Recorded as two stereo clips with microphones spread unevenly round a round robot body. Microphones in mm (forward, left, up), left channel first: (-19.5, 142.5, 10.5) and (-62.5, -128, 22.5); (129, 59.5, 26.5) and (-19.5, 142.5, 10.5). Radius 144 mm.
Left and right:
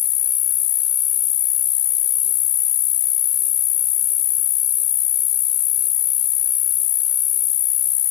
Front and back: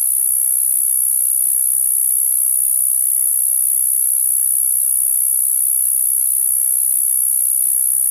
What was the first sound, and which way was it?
An insect, 65° left.